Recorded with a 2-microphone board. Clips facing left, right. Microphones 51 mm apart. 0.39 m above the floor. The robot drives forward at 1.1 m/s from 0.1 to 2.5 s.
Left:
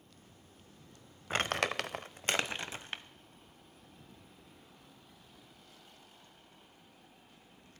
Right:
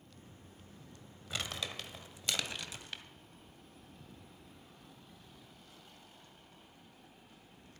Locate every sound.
1.3 s crumpling: 40° left (ahead or behind), 0.8 m; by 3.0 s 35° left (ahead or behind), 1.0 m